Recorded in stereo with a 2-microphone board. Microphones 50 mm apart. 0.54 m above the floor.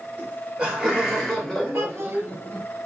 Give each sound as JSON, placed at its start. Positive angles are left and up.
{"t": 0.2, "sound": "laughter", "side_deg": -30, "distance_m": 1.4}
{"t": 1.7, "sound": "a child speaking", "side_deg": -50, "distance_m": 1.1}